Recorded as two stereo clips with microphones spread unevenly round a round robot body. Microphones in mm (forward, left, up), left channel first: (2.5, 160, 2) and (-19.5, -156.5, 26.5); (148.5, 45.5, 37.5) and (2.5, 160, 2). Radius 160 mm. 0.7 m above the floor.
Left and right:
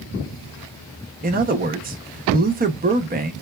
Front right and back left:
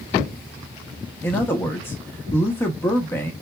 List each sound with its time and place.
1.2 s a man speaking: 130° right, 0.6 m